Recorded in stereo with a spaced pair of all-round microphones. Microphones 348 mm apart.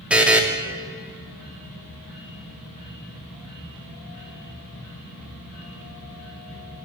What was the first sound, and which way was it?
A buzzer, 5° right (ahead or behind).